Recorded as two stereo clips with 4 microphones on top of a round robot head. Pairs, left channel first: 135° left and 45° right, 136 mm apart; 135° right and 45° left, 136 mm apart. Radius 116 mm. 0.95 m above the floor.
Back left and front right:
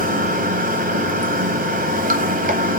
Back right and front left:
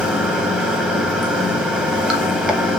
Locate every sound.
0.0 s running water: 40° right, 1.0 m